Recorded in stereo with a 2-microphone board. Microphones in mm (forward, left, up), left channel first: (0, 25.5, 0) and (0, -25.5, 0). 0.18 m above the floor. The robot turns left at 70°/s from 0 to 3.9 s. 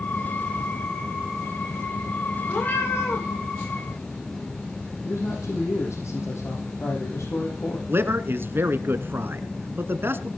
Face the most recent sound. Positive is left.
turn(degrees=-50)  # may be behind; listen again after turning